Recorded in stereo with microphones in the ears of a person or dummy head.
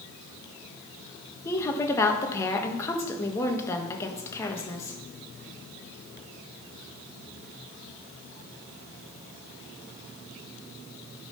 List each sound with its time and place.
1.4 s a woman speaking: 15° left (ahead or behind), 1.2 m